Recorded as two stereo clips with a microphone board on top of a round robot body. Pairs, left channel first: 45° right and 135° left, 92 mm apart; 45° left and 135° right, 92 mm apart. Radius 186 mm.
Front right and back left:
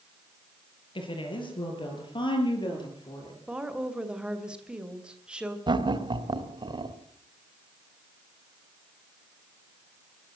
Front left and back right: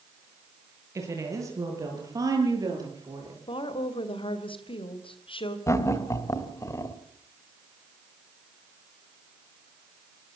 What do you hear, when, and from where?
0.9 s a woman speaking: 75° right, 9.5 m; by 3.4 s 85° right, 10 m
3.5 s a woman speaking: 55° left, 2.5 m
5.7 s laughter: 100° left, 3 m